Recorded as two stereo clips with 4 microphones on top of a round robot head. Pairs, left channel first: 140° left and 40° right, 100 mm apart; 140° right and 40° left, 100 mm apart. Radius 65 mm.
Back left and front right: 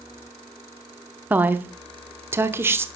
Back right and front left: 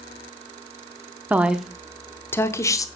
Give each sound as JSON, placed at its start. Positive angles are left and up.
{"t": 1.3, "sound": "a woman speaking", "azimuth_deg": 0, "distance_m": 0.9}